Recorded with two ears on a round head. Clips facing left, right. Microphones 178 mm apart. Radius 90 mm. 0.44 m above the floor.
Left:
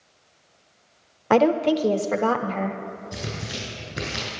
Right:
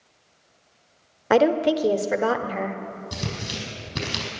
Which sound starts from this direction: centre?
A woman speaking, at 1.3 s.